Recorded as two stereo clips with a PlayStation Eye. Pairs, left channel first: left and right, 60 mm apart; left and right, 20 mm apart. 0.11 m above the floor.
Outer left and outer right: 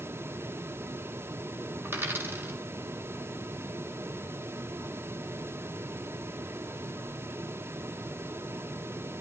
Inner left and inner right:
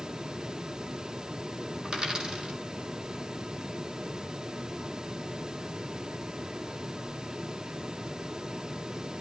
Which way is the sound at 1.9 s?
40° right (ahead or behind).